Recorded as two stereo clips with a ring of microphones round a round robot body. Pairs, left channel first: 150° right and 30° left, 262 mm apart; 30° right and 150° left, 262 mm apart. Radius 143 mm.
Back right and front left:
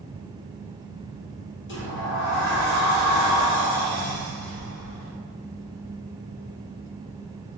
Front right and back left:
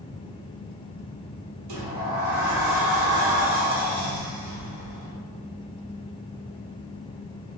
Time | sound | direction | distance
1.7 | a sliding door | 160° left | 0.9 m